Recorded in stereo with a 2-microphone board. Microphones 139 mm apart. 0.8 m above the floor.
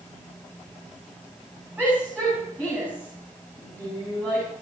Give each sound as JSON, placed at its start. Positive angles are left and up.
{"t": 1.8, "sound": "a shout", "side_deg": -10, "distance_m": 8.5}